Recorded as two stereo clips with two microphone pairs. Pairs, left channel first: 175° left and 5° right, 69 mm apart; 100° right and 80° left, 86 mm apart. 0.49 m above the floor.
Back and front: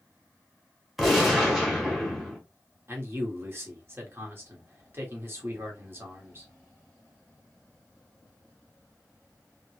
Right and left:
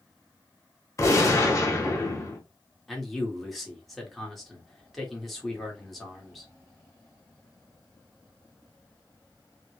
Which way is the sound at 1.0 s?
95° right.